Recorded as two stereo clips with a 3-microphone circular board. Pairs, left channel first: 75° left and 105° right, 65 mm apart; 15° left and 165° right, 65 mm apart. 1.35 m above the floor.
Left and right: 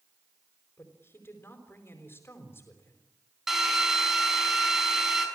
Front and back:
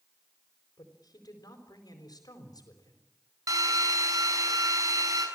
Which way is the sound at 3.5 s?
170° left.